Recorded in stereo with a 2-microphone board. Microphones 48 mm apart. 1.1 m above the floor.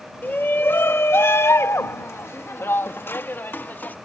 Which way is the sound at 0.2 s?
45° left (ahead or behind).